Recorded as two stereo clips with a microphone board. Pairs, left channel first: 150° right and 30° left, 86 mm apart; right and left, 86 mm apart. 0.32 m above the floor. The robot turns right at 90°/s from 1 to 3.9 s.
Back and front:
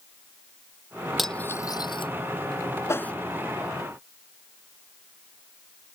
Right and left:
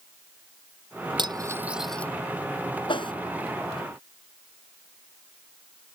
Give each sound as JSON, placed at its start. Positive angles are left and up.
{"t": 1.2, "sound": "cutlery clinking", "azimuth_deg": 120}
{"t": 2.9, "sound": "a whoosh", "azimuth_deg": -95}